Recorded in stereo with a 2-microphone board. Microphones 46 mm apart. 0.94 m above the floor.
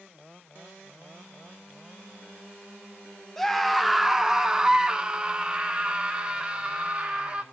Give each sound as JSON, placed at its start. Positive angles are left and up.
{"t": 3.4, "sound": "a scream", "side_deg": 5, "distance_m": 0.7}